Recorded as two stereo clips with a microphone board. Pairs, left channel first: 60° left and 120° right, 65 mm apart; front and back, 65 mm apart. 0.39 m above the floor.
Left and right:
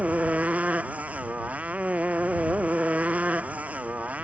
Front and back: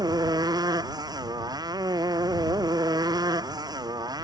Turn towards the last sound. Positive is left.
turn(degrees=170)